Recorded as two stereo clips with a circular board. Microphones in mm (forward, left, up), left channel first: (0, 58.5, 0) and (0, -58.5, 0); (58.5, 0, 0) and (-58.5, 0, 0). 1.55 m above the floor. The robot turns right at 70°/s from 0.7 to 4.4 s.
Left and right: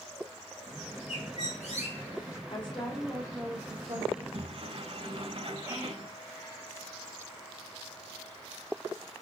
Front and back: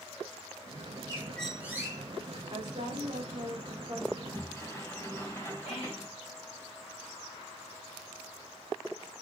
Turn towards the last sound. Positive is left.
turn(degrees=-25)